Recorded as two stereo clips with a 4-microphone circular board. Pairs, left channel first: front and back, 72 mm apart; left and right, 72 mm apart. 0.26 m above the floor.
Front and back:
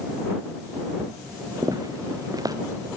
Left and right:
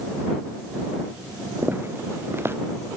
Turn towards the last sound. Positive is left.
turn(degrees=-150)